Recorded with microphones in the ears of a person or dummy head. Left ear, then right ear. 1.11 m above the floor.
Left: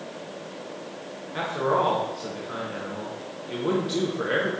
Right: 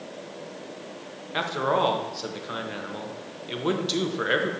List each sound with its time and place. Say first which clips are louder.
1.3 s a man speaking: even; 35° right (ahead or behind), 0.7 m